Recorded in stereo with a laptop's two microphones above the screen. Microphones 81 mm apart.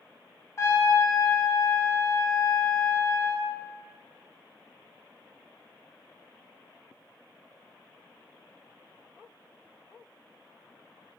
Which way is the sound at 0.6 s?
35° left (ahead or behind).